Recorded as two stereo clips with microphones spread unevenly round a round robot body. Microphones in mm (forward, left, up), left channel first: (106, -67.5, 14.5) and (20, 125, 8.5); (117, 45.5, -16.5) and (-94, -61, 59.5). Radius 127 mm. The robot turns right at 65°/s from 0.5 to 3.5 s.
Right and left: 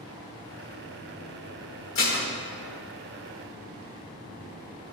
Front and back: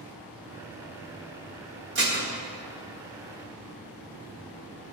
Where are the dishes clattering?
105° right, 1.0 m; by 2.3 s 85° right, 1.0 m.